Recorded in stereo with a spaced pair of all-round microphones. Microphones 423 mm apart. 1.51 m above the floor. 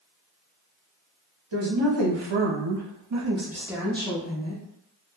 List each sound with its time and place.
1.5 s a woman speaking: 80° right, 1.1 m; by 4.6 s 20° left (ahead or behind), 0.9 m